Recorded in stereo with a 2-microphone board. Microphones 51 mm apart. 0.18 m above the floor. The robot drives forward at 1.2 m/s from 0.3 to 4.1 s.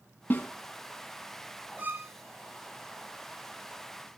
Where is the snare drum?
45° left (ahead or behind), 1.2 m; by 0.5 s 40° left (ahead or behind), 1.2 m.